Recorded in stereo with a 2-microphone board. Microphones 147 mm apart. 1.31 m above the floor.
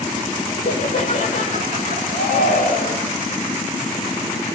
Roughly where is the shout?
Left.